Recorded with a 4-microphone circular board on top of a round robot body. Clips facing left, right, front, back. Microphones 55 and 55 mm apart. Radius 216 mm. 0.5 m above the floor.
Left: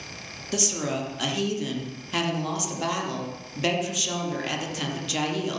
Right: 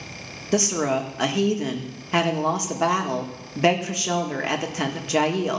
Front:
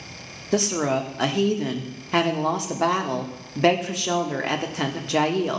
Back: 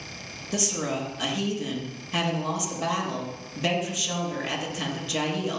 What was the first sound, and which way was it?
A woman speaking, 35° right.